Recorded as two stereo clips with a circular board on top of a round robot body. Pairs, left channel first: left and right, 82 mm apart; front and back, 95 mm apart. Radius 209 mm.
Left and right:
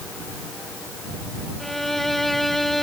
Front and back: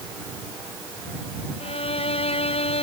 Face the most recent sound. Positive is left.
turn(degrees=5)